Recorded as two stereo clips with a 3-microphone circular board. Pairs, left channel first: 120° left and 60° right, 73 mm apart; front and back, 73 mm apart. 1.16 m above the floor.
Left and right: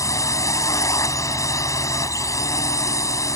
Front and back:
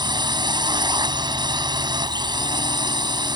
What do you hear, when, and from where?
0.0 s a drone: 165° left